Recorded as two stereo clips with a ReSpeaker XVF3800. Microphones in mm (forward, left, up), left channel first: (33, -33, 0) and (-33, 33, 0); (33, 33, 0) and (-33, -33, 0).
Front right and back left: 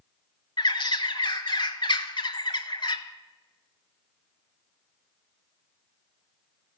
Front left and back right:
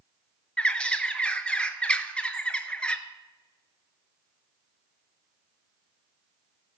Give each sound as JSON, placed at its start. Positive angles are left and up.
{"t": 0.6, "sound": "a bird", "azimuth_deg": -30, "distance_m": 0.7}